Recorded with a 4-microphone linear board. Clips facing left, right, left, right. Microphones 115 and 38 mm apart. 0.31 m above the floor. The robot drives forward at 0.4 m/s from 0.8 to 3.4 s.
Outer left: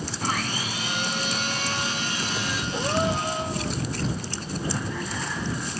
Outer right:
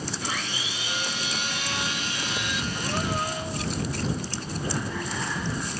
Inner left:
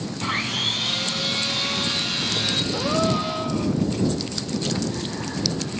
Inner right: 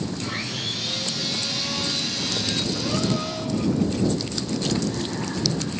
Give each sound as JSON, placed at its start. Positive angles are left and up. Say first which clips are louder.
{"t": 0.2, "sound": "sawing", "louder": "outer left 4 dB, inner left 5 dB", "side_deg": 45, "distance_m": 3.0}
{"t": 2.7, "sound": "a gasp", "louder": "outer left 6 dB, inner left 5 dB", "side_deg": 70, "distance_m": 3.0}